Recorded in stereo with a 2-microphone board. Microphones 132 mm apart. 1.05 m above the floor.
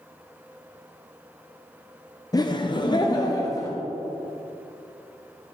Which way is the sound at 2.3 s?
30° left (ahead or behind).